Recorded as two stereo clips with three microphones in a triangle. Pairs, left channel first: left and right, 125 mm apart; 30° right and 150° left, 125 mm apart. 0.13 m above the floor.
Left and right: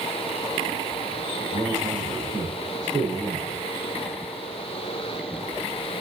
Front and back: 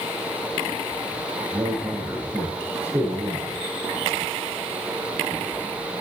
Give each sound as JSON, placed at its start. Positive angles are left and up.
{"t": 1.5, "sound": "a man speaking", "azimuth_deg": -135, "distance_m": 6.5}